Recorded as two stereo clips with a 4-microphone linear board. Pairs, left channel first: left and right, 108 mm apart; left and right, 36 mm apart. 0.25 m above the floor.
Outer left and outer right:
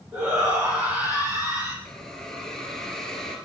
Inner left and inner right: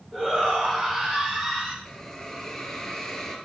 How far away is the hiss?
About 2.5 m.